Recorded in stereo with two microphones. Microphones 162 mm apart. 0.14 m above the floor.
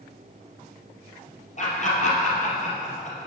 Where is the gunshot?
I don't hear a gunshot.